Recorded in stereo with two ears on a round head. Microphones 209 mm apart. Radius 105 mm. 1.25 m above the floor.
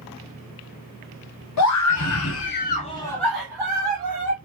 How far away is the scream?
About 0.8 m.